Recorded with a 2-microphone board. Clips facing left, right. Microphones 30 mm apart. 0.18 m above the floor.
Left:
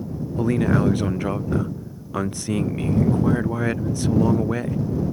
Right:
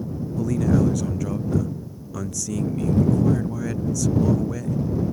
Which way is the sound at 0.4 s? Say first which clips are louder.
Left 1 dB; 35° left (ahead or behind).